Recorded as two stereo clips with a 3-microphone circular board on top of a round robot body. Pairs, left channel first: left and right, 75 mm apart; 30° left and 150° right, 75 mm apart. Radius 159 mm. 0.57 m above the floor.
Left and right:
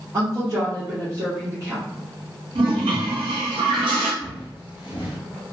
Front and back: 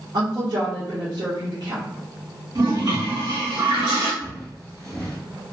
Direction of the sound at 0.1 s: 135° right.